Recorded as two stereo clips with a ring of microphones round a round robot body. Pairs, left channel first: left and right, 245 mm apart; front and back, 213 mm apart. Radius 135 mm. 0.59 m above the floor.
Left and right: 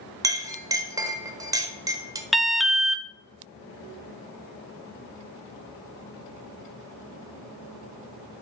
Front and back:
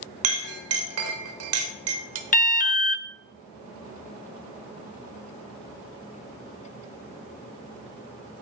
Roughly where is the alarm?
Ahead.